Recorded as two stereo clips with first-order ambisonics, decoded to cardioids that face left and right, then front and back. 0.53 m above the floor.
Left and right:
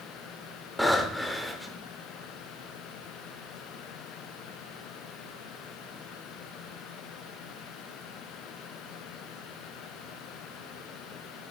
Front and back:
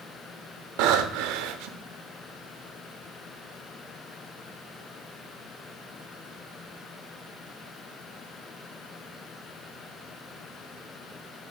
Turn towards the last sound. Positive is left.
turn(degrees=180)